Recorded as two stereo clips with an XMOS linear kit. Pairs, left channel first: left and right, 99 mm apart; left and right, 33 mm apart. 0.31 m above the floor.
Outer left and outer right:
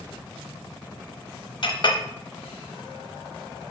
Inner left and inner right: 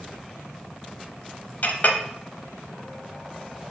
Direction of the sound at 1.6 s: 55° left (ahead or behind).